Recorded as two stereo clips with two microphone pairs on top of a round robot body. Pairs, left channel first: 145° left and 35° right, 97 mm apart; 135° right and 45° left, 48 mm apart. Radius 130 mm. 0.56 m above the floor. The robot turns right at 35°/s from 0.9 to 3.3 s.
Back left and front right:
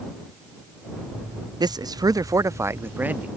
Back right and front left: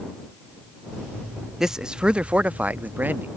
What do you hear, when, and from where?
1.6 s a man speaking: 25° right; by 3.3 s 35° left